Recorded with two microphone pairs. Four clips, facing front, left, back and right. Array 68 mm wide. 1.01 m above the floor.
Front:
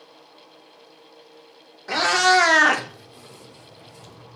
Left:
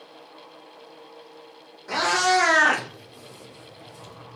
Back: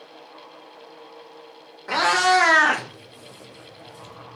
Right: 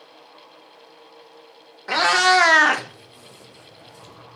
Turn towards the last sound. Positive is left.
turn(degrees=50)